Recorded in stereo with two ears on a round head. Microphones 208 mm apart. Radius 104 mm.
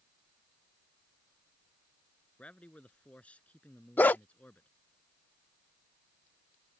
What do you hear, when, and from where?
2.4 s a man speaking: 5° left (ahead or behind)
4.0 s a dog barking: 10° left (ahead or behind)